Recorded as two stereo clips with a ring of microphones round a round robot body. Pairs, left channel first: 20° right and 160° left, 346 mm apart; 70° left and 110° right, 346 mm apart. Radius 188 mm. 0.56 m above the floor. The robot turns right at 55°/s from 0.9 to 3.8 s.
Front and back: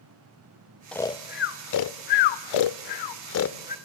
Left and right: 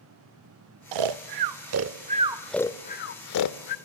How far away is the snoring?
About 0.6 m.